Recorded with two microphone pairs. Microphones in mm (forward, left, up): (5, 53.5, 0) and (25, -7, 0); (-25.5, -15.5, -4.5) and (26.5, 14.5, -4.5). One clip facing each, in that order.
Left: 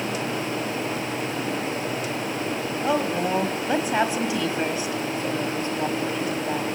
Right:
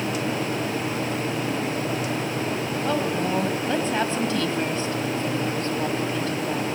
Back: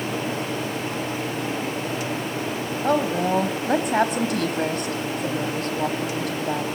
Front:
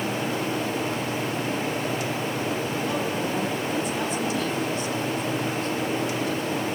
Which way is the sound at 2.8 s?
Straight behind.